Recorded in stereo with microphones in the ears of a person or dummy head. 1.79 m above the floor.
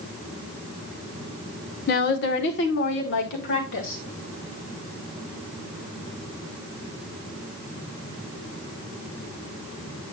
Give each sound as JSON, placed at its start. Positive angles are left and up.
{"t": 1.9, "sound": "a woman speaking", "side_deg": 50, "distance_m": 1.0}